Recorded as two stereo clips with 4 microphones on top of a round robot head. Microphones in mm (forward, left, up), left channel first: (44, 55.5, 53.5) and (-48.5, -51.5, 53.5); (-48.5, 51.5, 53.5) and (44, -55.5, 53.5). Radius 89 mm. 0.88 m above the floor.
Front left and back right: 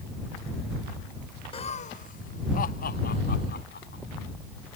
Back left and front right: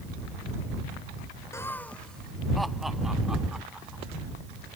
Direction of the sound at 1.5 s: 70° left.